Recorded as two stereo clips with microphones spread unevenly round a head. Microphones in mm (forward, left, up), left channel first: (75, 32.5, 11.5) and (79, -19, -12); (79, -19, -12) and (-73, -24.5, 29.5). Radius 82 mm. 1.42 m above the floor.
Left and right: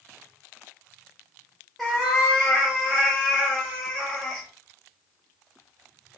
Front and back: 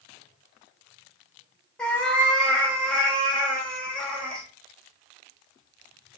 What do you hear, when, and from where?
1.8 s a cat meowing: 110° left, 0.7 m